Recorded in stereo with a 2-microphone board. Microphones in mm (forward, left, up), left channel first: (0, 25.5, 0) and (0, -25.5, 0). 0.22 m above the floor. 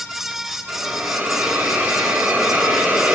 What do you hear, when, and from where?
0.7 s a hiss: 30° right (ahead or behind), 1.8 m